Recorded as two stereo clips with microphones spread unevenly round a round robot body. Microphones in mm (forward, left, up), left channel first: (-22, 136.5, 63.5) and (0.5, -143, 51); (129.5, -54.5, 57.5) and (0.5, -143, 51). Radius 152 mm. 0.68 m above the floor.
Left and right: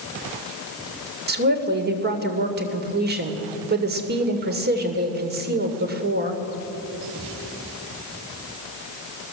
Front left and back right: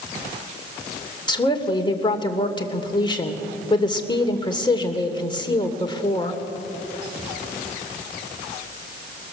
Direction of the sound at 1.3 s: 30° right.